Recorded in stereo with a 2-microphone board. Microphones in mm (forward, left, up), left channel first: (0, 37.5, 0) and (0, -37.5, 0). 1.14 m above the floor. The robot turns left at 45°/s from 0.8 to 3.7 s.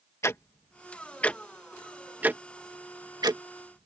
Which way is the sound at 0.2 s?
35° left (ahead or behind).